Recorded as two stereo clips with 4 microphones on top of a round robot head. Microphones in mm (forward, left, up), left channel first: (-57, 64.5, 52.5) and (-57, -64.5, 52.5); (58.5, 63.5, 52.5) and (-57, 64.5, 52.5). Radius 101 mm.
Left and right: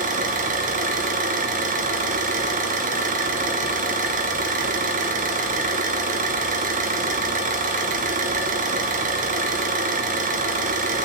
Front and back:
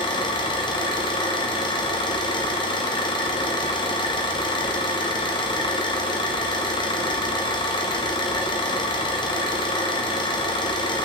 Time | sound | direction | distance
0.0 | an engine running | 60° right | 0.9 m